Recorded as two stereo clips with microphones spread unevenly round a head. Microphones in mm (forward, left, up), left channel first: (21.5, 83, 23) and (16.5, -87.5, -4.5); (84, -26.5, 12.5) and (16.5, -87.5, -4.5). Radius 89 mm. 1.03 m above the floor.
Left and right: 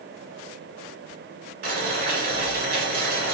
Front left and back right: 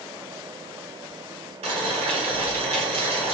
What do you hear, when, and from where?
1.6 s boiling: 135° right, 1.4 m